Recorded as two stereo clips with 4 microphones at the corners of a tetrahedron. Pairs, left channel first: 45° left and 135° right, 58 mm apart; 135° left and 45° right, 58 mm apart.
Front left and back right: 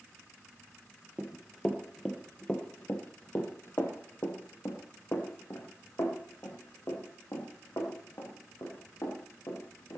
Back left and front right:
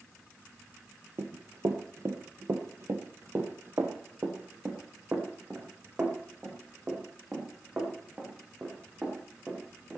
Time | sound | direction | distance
1.2 | running footsteps | 65° right | 1.6 m